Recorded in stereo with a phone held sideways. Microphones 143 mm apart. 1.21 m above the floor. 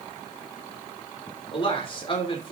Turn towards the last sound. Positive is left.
turn(degrees=40)  # may be behind; listen again after turning